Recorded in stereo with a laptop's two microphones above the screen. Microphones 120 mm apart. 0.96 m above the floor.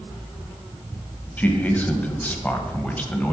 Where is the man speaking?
15° left (ahead or behind), 1.1 m.